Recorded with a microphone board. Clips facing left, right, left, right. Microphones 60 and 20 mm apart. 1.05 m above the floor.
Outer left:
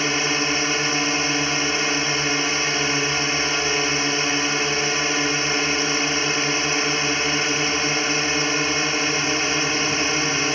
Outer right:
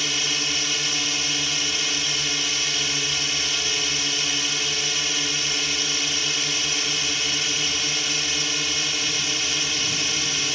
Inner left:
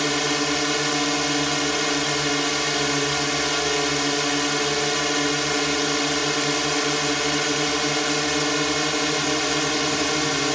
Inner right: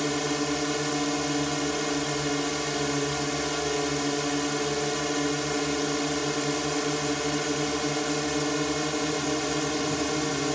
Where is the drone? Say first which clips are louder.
Outer left 6 dB, inner left 5 dB; 35° left (ahead or behind).